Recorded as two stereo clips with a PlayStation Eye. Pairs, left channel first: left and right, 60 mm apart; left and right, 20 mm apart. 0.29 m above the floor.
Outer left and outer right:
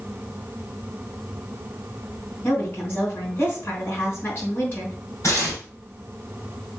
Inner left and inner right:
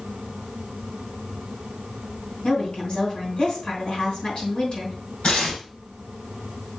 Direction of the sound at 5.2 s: 50° left (ahead or behind).